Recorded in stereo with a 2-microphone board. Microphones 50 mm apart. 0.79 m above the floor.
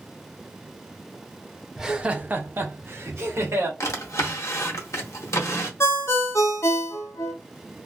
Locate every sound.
1.8 s laughter: 10° right (ahead or behind), 0.6 m; by 3.7 s 65° right (ahead or behind), 1.2 m
3.8 s a drawer: 75° left (ahead or behind), 0.8 m
5.8 s a ringtone: 65° left (ahead or behind), 0.6 m